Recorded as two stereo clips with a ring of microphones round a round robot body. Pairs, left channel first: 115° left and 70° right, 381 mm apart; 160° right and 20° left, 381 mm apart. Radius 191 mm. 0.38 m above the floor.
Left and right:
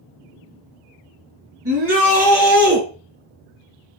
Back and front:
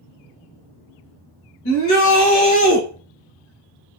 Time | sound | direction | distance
1.6 | a shout | 115° right | 2.5 m